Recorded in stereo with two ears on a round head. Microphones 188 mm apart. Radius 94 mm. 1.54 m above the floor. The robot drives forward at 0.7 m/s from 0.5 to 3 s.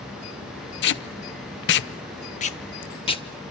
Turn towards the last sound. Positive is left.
turn(degrees=25)  # may be behind; listen again after turning